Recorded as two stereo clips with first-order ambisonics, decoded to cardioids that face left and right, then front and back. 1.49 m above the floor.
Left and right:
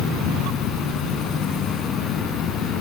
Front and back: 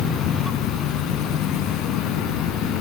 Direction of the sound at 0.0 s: 45° left.